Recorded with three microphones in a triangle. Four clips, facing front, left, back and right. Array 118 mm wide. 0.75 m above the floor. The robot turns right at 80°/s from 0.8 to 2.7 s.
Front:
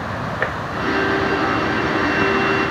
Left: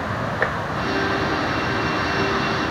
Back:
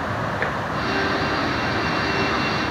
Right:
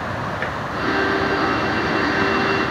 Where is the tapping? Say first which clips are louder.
Left 3 dB, front 4 dB; 45° left, 0.7 m.